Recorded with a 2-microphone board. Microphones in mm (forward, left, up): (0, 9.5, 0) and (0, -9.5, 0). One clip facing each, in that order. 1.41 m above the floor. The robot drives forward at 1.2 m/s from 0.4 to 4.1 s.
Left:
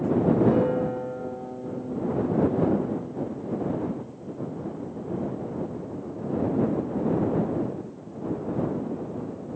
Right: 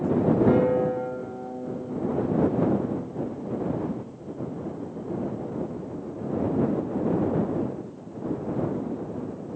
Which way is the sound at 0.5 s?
60° right (ahead or behind).